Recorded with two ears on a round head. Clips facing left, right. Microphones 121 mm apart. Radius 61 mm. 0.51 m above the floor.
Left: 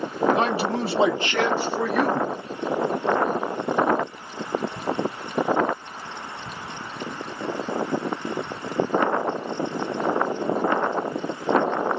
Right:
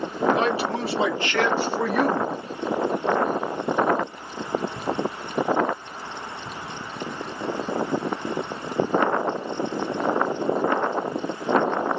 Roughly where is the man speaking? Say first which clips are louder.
Even; left.